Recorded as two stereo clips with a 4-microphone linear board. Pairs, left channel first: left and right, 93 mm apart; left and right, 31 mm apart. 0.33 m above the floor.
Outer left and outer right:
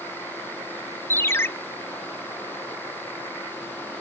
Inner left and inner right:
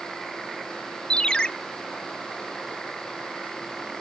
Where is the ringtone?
25° left (ahead or behind), 0.8 m.